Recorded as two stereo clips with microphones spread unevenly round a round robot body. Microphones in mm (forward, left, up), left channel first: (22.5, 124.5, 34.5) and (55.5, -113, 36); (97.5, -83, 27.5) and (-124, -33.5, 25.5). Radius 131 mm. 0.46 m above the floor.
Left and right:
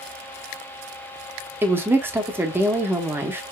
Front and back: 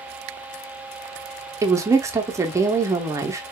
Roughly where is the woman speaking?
Behind right.